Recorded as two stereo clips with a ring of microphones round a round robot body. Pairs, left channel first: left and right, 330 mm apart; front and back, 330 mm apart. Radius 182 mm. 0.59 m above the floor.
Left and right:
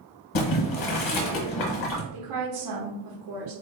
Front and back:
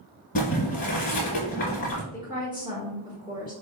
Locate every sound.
0.3 s boiling: 65° left, 0.7 m
2.1 s a woman speaking: 105° right, 1.1 m